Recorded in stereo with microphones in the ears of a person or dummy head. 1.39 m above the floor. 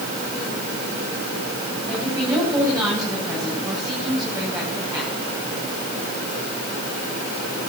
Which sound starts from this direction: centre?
A woman speaking, at 1.9 s.